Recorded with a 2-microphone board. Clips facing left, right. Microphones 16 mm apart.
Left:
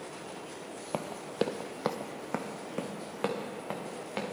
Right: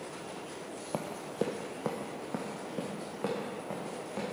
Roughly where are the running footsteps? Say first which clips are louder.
Left 2 dB; left.